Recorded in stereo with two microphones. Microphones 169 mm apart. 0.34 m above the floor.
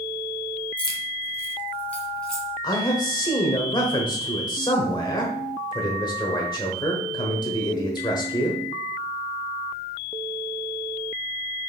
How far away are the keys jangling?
About 1.0 m.